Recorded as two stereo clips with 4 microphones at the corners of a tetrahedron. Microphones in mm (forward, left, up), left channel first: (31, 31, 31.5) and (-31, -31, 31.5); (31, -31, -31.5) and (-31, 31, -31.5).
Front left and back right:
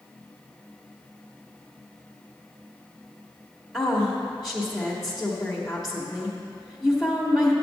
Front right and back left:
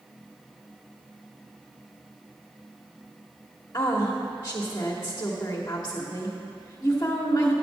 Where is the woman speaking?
40° right, 1.3 m.